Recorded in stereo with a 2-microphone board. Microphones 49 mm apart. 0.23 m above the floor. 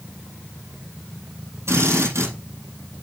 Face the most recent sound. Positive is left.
turn(degrees=-75)  # may be behind; listen again after turning